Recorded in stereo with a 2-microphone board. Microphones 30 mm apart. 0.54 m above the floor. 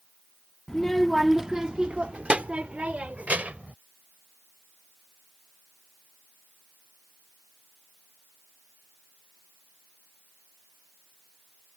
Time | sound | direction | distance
0.7 | a child speaking | 25° left (ahead or behind) | ?